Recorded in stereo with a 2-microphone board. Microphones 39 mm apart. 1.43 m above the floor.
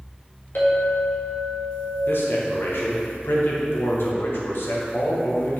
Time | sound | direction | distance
0.6 | a clink | 80° left | 1.7 m
2.1 | a man speaking | 65° left (ahead or behind) | 1.3 m